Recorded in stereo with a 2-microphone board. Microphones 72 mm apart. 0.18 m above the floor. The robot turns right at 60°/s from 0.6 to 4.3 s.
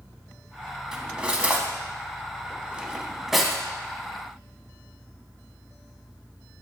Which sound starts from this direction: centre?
Cutlery clinking, at 0.9 s.